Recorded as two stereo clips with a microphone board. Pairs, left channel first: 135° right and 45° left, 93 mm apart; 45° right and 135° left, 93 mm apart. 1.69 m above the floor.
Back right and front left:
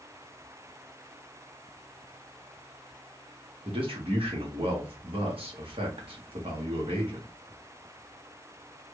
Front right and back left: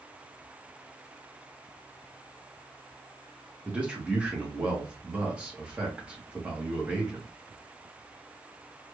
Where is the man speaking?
55° left, 1.4 m.